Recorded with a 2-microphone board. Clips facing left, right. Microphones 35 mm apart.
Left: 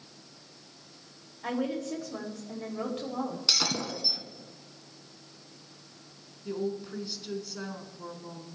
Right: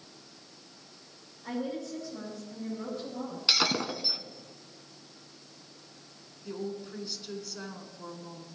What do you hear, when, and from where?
1.4 s a woman speaking: 75° left (ahead or behind), 6 m
3.5 s breaking glass: 30° right (ahead or behind), 1.2 m
6.5 s a woman speaking: 5° left (ahead or behind), 3 m